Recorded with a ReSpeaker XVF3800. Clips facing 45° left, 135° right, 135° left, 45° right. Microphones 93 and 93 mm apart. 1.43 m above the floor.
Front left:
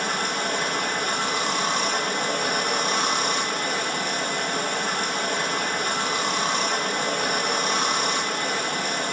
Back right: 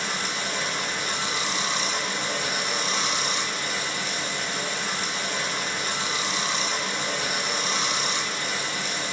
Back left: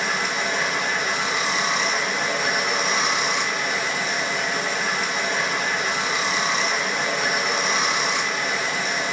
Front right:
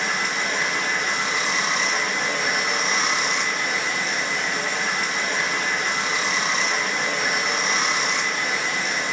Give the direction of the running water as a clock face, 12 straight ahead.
10 o'clock.